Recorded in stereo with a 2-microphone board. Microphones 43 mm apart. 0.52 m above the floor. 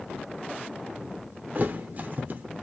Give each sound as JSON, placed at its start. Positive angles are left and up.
{"t": 1.6, "sound": "a thud", "side_deg": -45, "distance_m": 0.6}